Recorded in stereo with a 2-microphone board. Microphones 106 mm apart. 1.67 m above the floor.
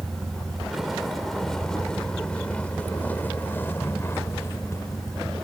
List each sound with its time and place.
0.0 s a vehicle: 10° right (ahead or behind); by 5.4 s 30° left (ahead or behind)